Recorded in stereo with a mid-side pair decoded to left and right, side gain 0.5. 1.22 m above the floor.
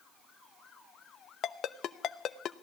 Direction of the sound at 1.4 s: 60° left.